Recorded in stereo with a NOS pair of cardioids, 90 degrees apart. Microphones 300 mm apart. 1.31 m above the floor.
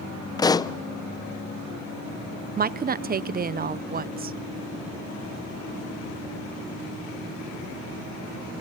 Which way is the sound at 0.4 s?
15° left.